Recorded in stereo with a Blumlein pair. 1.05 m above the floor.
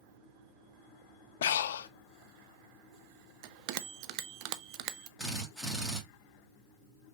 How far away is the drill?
About 2 m.